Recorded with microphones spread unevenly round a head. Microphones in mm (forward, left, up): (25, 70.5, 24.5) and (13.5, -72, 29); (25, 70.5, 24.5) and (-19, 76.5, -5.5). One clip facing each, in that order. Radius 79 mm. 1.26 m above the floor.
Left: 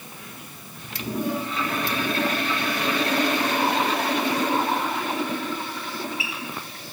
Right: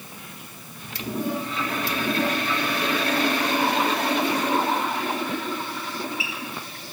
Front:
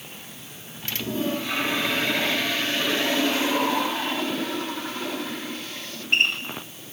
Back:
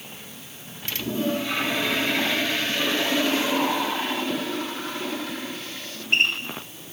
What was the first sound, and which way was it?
Only background noise.